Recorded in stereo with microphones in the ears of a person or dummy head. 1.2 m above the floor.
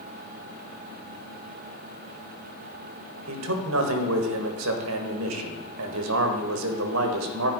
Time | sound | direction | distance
3.3 | a man speaking | 75° right (ahead or behind) | 1.6 m